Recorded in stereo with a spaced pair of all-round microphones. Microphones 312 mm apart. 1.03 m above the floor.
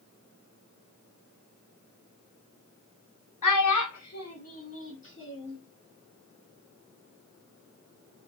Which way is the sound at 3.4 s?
80° left.